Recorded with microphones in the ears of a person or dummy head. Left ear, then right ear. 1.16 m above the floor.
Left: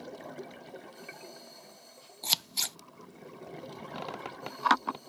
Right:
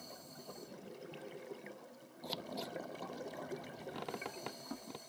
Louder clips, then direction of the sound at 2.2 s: Left 13 dB; 75° left (ahead or behind).